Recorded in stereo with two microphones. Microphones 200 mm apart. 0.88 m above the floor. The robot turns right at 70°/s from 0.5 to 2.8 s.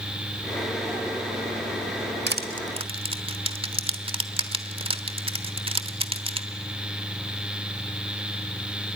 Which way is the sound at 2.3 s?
65° right (ahead or behind).